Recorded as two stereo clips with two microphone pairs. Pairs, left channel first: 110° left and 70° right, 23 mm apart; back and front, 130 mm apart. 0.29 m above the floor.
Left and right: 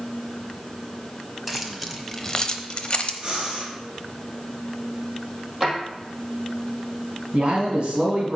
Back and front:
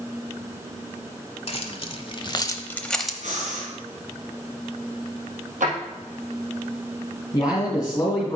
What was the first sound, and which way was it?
Keys jangling, 150° right.